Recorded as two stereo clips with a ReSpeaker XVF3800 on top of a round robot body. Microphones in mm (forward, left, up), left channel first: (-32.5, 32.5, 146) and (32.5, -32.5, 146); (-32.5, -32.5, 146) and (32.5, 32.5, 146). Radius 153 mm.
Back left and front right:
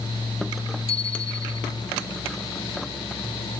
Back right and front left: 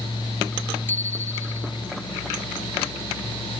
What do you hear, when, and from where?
0.9 s a bicycle bell: 155° left